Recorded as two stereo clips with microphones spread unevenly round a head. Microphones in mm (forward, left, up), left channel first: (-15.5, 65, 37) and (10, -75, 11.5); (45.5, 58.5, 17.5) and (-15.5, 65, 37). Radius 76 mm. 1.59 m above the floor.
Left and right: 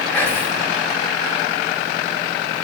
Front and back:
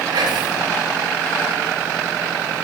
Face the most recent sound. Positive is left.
turn(degrees=175)